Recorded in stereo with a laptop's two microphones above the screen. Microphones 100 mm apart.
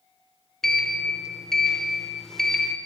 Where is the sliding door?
5° left (ahead or behind), 0.7 m.